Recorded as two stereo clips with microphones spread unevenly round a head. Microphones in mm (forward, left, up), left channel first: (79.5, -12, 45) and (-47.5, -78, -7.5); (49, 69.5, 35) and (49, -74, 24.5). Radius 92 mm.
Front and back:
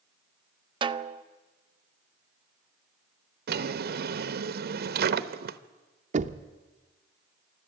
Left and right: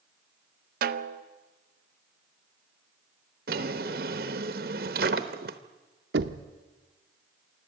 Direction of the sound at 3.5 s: 130° right.